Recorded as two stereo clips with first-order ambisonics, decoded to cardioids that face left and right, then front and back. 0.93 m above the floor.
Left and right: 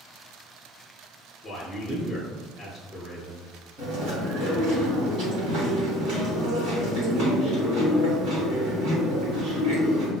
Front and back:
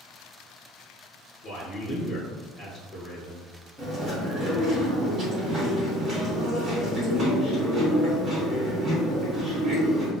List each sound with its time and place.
1.4 s a man speaking: 25° left, 0.6 m
3.8 s chewing: 115° right, 1.5 m